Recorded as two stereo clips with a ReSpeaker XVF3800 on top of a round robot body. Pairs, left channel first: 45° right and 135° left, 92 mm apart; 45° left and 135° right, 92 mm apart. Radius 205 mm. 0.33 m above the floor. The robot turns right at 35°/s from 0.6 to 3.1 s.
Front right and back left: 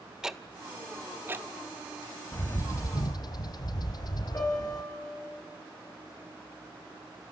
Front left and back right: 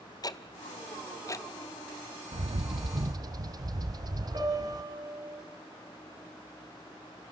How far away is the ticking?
About 1.2 m.